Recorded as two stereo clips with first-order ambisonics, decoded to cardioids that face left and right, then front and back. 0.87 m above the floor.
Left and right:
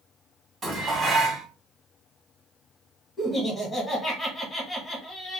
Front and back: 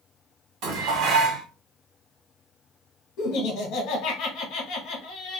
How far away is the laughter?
About 1.2 m.